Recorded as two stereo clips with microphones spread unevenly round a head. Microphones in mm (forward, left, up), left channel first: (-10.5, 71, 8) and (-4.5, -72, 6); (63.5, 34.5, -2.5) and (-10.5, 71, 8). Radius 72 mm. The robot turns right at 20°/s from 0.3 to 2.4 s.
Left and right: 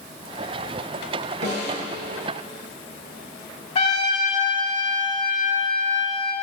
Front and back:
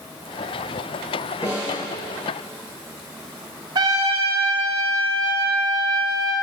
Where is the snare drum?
95° right, 4 m; by 1.9 s 85° right, 4 m.